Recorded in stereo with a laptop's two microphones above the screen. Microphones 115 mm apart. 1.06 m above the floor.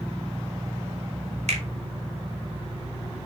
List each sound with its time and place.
1.5 s a finger snap: 75° right (ahead or behind), 3 m